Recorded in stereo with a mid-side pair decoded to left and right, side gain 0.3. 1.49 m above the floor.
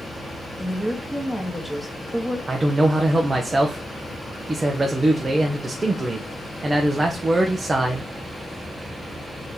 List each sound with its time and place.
0.6 s a woman speaking: 5° left, 1.7 m
2.5 s a man speaking: 35° right, 1.0 m